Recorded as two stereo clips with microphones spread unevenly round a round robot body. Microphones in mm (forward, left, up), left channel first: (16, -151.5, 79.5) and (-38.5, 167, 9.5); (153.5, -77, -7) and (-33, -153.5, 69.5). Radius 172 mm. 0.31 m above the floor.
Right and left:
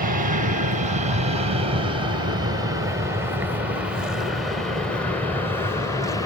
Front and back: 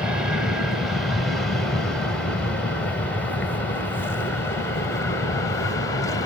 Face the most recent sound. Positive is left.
turn(degrees=10)